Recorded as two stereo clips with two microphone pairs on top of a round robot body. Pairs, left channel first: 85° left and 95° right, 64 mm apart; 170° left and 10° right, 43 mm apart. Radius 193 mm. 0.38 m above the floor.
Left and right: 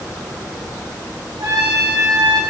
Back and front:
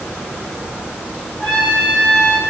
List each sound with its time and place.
1.4 s a trumpet: 120° right, 4 m